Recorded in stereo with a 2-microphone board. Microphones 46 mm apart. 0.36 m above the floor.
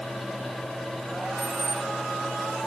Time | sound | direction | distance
1.4 | keys jangling | 75° right (ahead or behind) | 1.8 m